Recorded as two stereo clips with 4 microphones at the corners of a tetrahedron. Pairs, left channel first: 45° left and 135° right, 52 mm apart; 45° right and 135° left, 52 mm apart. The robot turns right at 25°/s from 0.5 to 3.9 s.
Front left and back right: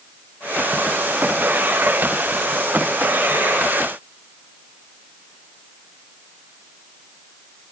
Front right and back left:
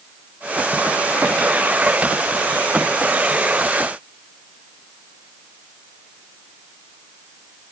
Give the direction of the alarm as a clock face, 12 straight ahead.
I don't hear an alarm.